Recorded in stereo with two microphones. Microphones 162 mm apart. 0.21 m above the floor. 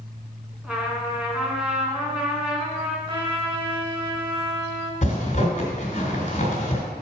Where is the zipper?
45° left (ahead or behind), 2 m.